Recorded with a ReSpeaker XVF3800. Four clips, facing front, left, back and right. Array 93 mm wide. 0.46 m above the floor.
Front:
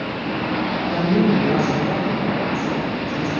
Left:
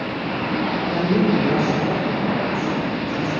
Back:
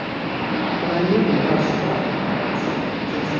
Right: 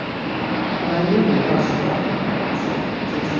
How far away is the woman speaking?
About 1.3 m.